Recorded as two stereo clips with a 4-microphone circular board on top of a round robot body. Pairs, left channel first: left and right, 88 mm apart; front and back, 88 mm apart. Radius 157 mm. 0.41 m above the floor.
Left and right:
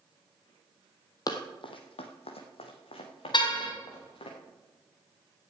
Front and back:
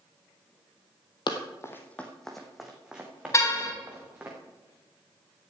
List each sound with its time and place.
1.3 s running footsteps: 40° left, 1.1 m; by 4.3 s 110° left, 4 m
3.3 s a car horn: 55° left, 2.5 m